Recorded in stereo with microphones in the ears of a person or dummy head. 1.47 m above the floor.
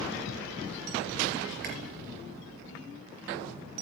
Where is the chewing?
55° right (ahead or behind), 4.5 m.